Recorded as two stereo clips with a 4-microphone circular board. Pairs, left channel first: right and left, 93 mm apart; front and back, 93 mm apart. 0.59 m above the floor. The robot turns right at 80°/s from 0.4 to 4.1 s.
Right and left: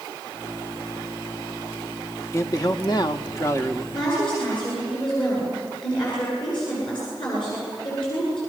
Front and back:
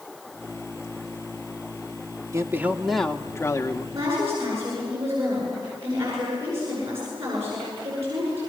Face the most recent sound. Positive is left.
turn(degrees=-120)